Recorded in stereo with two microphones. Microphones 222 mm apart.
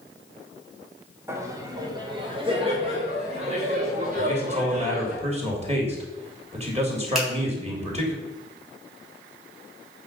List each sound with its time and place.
1.3 s laughter: 10° right (ahead or behind), 1.3 m; by 5.2 s 35° right (ahead or behind), 3 m
4.2 s a man speaking: 30° right (ahead or behind), 2.5 m
7.2 s a finger snap: centre (ahead or behind), 4 m